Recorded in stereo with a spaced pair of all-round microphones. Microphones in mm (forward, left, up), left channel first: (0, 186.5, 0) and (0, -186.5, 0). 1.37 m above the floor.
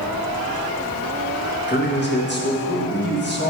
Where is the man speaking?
30° left (ahead or behind), 1.4 m.